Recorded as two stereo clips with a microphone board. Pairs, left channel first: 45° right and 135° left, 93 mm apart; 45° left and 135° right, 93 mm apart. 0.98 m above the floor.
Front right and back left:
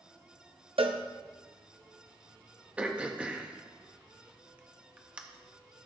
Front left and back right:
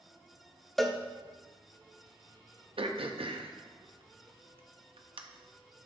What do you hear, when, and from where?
0.8 s a cowbell: 135° left, 0.6 m
2.8 s throat clearing: 150° right, 0.7 m